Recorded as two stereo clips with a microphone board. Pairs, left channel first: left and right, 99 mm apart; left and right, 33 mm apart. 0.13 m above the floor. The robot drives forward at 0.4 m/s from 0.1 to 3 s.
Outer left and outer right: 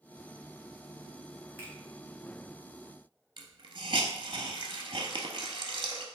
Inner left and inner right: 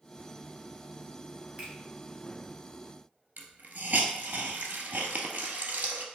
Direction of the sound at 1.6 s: 30° right (ahead or behind).